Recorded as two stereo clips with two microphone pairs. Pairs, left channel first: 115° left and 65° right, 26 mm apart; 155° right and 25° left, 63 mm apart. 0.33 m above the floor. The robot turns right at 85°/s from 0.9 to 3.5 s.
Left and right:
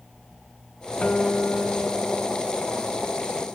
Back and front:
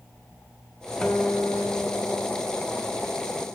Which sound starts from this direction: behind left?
A guitar, at 1.0 s.